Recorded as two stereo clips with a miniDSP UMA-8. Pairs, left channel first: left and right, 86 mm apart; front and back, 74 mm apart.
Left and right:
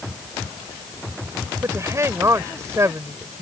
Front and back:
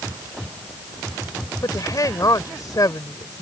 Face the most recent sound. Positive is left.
turn(degrees=-35)